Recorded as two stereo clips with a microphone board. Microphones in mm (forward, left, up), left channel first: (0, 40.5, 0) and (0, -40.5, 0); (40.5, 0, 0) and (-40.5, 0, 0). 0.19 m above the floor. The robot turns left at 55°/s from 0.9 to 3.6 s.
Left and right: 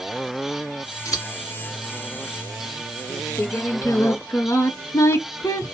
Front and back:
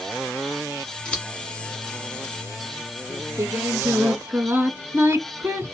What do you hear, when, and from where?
1.1 s scissors: 75° left, 1.3 m; by 1.3 s 65° left, 1.3 m
3.1 s singing: 155° left, 0.7 m; by 5.7 s 130° left, 0.7 m